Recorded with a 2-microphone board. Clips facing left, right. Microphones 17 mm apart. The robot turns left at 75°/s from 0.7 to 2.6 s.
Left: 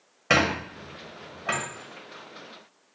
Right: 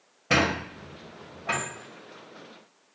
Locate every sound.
0.3 s a squeak: 80° left, 0.8 m; by 1.6 s 30° left (ahead or behind), 0.8 m